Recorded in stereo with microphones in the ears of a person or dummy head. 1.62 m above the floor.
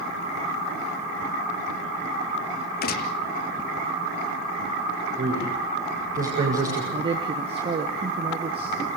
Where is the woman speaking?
30° right (ahead or behind), 1.2 m.